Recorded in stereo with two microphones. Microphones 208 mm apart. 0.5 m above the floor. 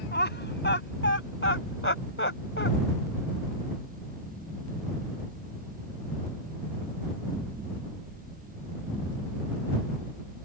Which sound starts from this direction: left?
Laughter, at 0.1 s.